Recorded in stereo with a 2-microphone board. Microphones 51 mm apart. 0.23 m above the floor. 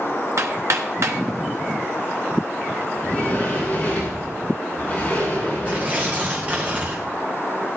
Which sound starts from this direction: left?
A sliding door, at 3.0 s.